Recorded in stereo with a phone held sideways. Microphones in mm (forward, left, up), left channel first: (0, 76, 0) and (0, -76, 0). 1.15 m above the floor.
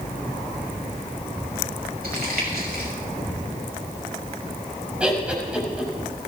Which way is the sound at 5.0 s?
5° right (ahead or behind).